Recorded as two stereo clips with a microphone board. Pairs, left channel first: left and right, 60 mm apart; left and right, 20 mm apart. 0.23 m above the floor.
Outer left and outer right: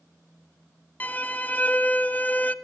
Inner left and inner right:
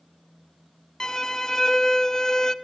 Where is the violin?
30° left (ahead or behind), 0.8 m.